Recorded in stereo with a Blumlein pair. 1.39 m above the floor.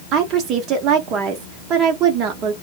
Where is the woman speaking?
35° right, 0.9 m.